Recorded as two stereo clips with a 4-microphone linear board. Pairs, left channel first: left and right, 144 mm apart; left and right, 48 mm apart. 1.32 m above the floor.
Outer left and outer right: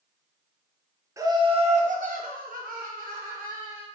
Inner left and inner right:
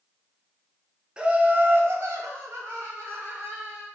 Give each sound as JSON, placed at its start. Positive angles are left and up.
{"t": 1.2, "sound": "laughter", "side_deg": -20, "distance_m": 0.7}